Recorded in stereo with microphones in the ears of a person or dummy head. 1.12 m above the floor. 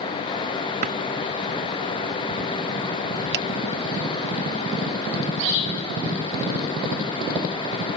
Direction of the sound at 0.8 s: 40° right (ahead or behind).